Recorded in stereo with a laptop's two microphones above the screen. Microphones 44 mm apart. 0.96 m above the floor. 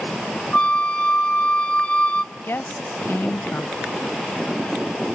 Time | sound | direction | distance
0.5 | a flute | 25° left (ahead or behind) | 0.5 m
2.3 | a woman speaking | 60° left (ahead or behind) | 0.5 m